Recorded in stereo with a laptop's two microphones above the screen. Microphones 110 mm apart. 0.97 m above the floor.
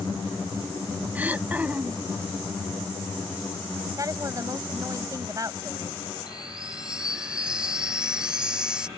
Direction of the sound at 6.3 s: 10° right (ahead or behind).